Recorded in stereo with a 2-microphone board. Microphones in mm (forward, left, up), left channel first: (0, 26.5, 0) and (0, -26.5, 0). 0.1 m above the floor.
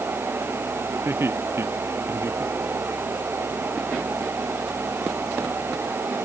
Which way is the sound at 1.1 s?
45° right (ahead or behind).